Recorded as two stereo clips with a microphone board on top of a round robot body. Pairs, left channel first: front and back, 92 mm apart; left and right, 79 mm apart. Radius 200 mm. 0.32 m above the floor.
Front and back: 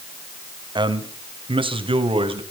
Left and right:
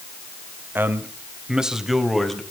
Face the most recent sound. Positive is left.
turn(degrees=175)